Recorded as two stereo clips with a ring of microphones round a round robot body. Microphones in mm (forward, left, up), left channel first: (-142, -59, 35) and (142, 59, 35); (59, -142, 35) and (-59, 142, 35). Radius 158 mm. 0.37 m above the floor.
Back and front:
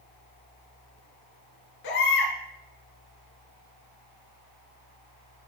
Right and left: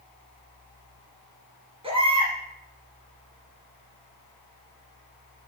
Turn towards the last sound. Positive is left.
turn(degrees=-175)